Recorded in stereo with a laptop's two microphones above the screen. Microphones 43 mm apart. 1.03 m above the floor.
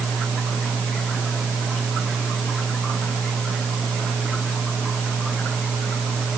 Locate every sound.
Only background noise.